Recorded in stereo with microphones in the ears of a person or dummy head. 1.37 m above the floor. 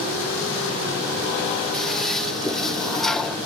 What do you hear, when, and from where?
1.7 s a toilet flushing: 5° left (ahead or behind)